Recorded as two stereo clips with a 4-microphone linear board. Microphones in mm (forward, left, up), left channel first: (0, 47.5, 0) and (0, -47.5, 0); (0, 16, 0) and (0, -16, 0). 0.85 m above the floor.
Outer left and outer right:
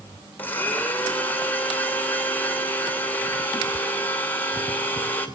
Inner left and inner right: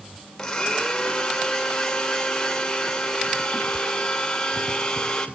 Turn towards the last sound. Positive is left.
turn(degrees=20)  # may be behind; listen again after turning